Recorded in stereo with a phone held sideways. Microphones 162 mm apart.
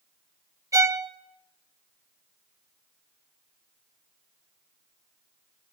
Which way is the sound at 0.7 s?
20° right (ahead or behind).